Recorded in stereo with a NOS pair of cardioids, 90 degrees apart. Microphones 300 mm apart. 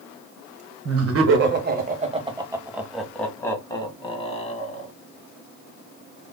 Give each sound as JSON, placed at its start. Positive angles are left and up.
{"t": 0.8, "sound": "laughter", "azimuth_deg": -55, "distance_m": 1.4}